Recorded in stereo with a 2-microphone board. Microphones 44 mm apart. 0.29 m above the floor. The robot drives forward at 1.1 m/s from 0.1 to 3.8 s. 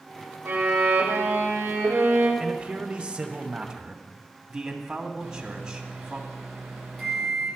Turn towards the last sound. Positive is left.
turn(degrees=0)  # may be behind; listen again after turning